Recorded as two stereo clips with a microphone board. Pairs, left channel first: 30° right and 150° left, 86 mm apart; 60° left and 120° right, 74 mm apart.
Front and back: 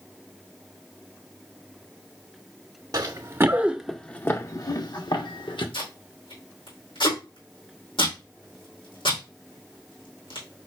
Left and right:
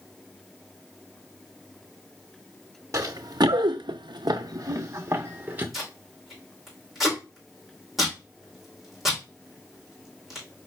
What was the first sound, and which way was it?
Running footsteps, 165° right.